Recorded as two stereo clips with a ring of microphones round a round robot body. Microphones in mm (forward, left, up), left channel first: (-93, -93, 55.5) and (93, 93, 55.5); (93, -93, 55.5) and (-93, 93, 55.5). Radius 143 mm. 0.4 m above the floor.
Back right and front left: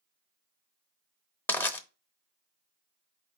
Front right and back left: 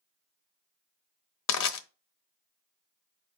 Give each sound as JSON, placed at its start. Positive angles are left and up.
{"t": 1.5, "sound": "crushing", "azimuth_deg": -55, "distance_m": 0.8}